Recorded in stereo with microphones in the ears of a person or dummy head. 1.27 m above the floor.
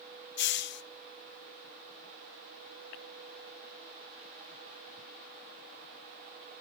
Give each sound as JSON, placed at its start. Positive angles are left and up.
{"t": 0.4, "sound": "a hiss", "side_deg": 65, "distance_m": 0.7}